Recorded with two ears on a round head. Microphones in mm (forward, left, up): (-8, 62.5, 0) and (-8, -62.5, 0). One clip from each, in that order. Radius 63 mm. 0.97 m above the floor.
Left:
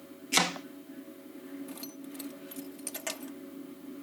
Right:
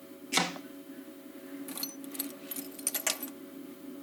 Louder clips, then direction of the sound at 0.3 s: Left 3 dB; 10° left (ahead or behind).